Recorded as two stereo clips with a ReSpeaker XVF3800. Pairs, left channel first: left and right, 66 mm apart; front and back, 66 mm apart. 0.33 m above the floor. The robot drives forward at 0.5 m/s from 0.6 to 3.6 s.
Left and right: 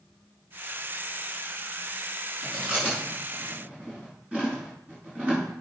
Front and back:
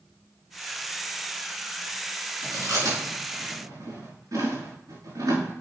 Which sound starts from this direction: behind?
Chewing, at 2.4 s.